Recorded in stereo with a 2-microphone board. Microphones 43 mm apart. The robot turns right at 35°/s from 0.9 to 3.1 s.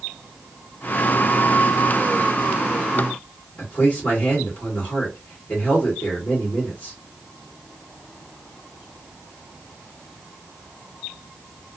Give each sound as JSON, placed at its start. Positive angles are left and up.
{"t": 3.6, "sound": "a man speaking", "side_deg": 30, "distance_m": 1.8}